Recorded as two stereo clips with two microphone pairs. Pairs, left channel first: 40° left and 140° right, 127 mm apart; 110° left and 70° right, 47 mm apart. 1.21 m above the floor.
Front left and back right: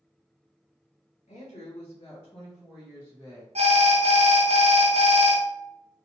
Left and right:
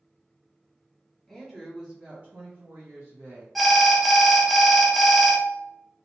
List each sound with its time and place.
1.3 s a woman speaking: 25° left, 1.4 m; by 3.5 s 80° right, 1.7 m
3.5 s an alarm: 165° right, 0.7 m